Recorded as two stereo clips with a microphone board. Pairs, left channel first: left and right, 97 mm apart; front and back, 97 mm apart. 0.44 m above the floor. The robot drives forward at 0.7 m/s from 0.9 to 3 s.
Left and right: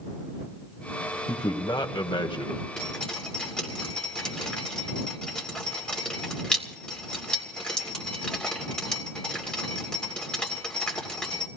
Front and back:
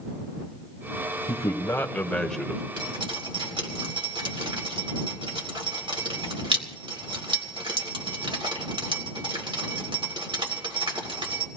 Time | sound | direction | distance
1.3 | a man speaking | 50° left | 1.6 m
2.8 | dripping | 170° left | 2.5 m